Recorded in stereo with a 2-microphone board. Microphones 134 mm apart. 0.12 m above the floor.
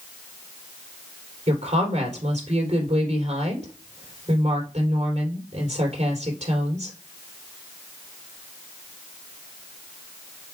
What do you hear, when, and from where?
1.5 s a woman speaking: 60° right (ahead or behind), 3.5 m